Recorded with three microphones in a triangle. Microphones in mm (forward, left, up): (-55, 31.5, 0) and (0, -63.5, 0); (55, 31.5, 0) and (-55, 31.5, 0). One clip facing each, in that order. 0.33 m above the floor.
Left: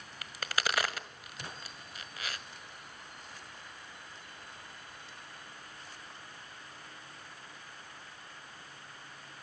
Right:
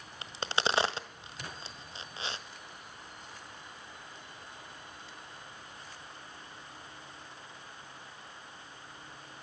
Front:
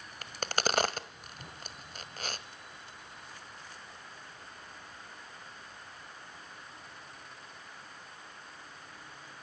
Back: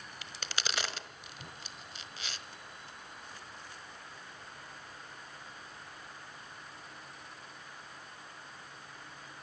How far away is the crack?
About 1.6 m.